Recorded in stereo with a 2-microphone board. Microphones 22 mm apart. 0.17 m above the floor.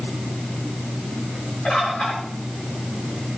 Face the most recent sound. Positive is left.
turn(degrees=60)  # may be behind; listen again after turning